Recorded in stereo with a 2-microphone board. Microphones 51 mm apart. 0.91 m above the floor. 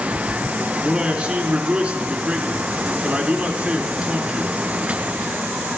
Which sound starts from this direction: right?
A man speaking, at 0.8 s.